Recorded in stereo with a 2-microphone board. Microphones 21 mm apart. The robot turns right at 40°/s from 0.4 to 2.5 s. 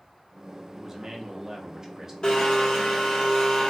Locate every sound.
0.8 s a man speaking: 10° right (ahead or behind), 0.5 m; by 2.1 s 25° right (ahead or behind), 0.5 m
2.2 s a blender: 50° left (ahead or behind), 0.9 m; by 3.7 s 40° left (ahead or behind), 0.9 m